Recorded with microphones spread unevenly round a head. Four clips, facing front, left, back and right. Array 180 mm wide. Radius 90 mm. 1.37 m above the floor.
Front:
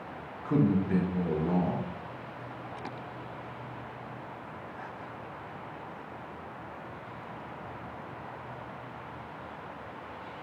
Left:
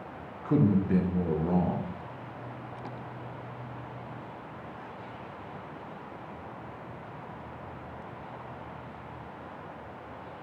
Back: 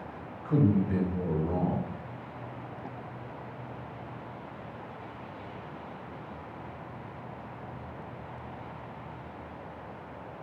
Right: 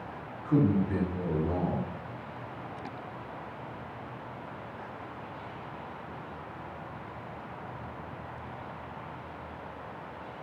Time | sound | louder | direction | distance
0.5 | a man speaking | left 1 dB, even | 55° left | 0.9 m